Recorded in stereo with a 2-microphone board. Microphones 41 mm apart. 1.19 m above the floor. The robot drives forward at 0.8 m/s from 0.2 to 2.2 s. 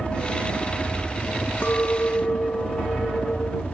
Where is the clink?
55° left (ahead or behind); by 3.6 s 65° left (ahead or behind).